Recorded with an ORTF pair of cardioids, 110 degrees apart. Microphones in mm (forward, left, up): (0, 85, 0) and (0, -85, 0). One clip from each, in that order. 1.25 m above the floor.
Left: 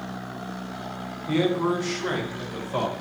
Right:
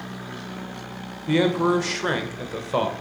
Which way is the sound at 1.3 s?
40° right.